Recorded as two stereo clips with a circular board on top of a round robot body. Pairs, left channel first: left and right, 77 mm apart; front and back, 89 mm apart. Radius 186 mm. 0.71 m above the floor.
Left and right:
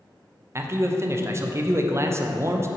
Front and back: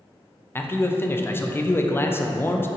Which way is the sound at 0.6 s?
50° right.